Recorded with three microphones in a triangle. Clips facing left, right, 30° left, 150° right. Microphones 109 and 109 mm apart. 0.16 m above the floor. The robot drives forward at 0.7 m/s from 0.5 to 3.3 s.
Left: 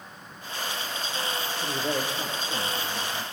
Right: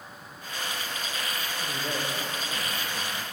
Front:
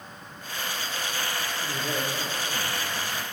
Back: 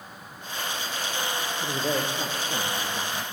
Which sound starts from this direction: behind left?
A man speaking, at 1.6 s.